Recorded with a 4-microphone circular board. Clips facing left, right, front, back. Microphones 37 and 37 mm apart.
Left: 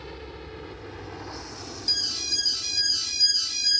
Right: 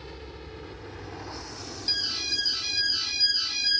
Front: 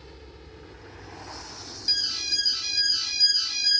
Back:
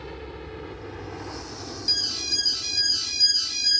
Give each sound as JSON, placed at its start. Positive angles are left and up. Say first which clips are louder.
{"t": 0.0, "sound": "a helicopter", "louder": "left 3 dB, back 10 dB", "azimuth_deg": 160}
{"t": 1.9, "sound": "an alarm", "louder": "even, even", "azimuth_deg": -65}